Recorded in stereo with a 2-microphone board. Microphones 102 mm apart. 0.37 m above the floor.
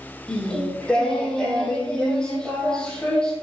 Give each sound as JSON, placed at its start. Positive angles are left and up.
{"t": 0.3, "sound": "singing", "side_deg": 10, "distance_m": 4.5}